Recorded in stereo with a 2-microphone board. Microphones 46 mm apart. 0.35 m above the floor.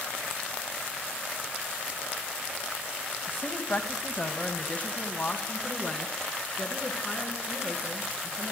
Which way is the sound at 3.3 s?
60° left (ahead or behind).